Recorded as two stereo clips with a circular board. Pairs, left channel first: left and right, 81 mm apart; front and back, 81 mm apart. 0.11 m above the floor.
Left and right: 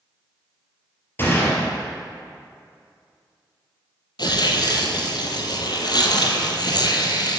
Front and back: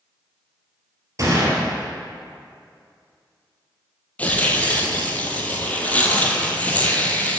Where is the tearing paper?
70° left, 1.0 m.